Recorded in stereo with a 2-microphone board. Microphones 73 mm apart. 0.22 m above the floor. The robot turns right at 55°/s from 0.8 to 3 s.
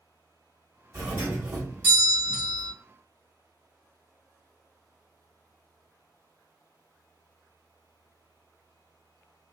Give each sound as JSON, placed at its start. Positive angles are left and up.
{"t": 0.9, "sound": "a doorbell", "side_deg": -25, "distance_m": 1.5}